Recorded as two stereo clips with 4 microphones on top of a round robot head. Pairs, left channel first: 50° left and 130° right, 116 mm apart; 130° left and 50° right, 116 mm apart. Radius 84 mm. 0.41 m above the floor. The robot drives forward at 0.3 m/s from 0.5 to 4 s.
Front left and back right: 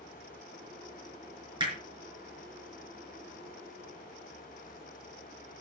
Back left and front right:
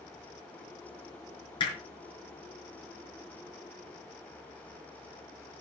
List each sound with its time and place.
1.6 s hammering: straight behind, 5.5 m